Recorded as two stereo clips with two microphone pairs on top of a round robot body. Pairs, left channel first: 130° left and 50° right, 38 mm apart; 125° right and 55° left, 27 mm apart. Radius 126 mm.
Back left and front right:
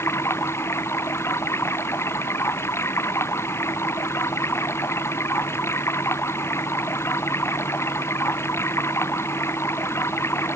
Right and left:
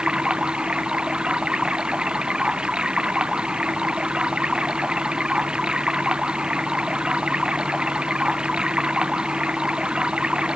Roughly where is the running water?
Behind left.